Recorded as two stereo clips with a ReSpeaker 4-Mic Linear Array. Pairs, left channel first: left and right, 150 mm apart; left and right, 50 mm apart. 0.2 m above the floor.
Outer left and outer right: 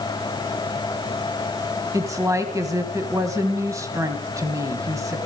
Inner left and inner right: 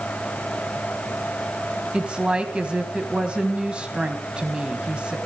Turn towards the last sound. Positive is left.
turn(degrees=-20)  # may be behind; listen again after turning